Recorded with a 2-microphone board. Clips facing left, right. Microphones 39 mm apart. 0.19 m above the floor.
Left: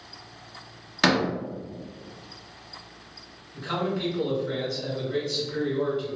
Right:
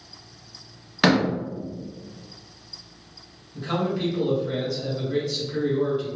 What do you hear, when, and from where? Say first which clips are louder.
1.0 s a door slam: right 3 dB; 10° right (ahead or behind), 0.7 m
3.5 s a man speaking: right 2 dB; 10° right (ahead or behind), 1.7 m